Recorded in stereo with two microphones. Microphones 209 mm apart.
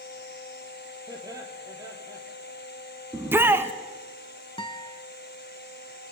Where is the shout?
10° right (ahead or behind), 1.1 m.